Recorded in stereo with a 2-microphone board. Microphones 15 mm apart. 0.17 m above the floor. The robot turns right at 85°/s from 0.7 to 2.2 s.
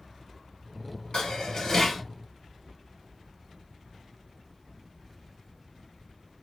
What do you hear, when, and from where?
1.1 s dishes clattering: 95° left, 1.7 m; by 2.0 s 170° left, 1.7 m